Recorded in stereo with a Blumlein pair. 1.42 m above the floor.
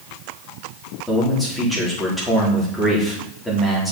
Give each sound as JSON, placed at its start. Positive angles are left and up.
{"t": 1.1, "sound": "a man speaking", "azimuth_deg": 5, "distance_m": 4.5}